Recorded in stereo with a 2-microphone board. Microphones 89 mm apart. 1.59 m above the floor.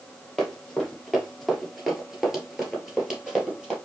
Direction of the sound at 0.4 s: 5° left (ahead or behind).